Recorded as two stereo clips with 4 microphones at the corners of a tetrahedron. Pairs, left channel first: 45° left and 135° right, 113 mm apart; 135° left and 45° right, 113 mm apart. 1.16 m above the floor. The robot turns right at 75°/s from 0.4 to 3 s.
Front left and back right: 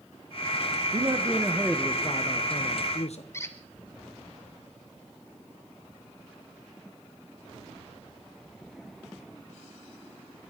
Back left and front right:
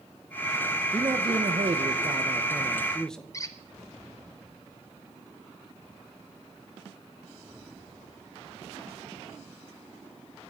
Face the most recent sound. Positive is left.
turn(degrees=95)